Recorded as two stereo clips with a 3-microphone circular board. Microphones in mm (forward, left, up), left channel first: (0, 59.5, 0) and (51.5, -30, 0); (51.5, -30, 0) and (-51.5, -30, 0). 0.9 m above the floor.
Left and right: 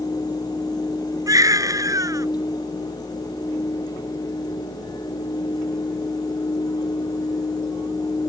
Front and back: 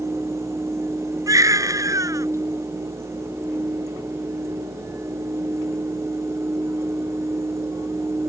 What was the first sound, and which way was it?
A baby crying, 120° right.